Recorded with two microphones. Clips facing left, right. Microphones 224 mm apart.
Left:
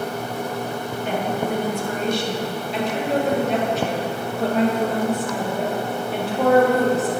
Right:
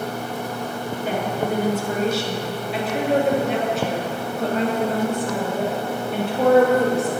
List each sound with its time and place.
1.1 s a woman speaking: 10° right (ahead or behind), 1.3 m; by 7.1 s 5° left (ahead or behind), 3.5 m